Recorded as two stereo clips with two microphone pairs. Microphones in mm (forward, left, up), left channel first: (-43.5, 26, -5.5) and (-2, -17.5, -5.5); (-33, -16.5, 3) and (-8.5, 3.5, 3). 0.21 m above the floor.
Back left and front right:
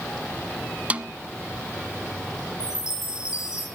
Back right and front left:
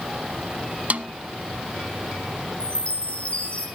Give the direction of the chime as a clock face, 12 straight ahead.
7 o'clock.